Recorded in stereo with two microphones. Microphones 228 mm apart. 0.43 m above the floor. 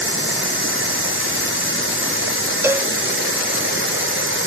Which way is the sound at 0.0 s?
60° right (ahead or behind).